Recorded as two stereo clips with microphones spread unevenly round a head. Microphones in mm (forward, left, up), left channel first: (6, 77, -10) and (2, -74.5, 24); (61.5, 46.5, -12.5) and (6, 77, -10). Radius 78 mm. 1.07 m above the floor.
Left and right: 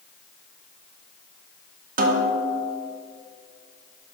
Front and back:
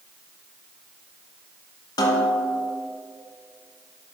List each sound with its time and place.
2.0 s a snare drum: 55° right, 1.0 m